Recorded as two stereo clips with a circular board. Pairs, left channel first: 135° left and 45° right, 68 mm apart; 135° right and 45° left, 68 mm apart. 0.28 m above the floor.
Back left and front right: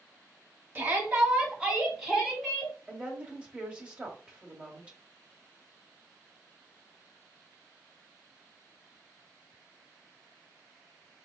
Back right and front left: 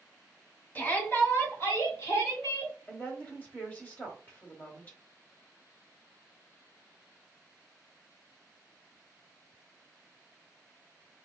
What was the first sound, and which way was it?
A shout, 90° right.